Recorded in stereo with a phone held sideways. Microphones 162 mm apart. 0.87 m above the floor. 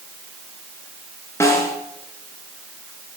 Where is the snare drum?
15° left (ahead or behind), 3 m.